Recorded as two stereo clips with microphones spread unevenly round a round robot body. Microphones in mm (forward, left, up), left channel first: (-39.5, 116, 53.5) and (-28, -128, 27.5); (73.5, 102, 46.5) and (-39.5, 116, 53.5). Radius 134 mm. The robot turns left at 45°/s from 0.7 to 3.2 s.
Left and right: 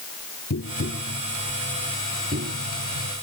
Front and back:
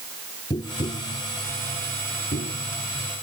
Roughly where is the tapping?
Ahead left.